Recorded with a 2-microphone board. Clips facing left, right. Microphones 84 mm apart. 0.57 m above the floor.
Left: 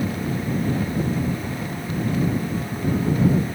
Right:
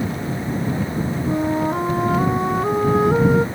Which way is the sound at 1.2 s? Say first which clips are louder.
Right 8 dB; 80° right.